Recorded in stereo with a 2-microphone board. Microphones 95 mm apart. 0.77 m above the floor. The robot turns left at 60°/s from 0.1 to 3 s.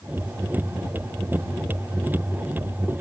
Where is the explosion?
No explosion in this recording.